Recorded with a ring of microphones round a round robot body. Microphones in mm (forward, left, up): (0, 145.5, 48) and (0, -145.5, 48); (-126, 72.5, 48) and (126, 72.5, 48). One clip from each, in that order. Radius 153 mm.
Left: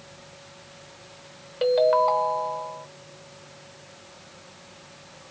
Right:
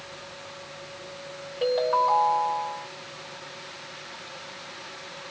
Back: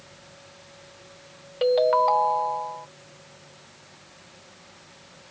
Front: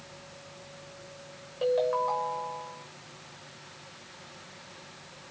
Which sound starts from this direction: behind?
A ringtone, at 1.6 s.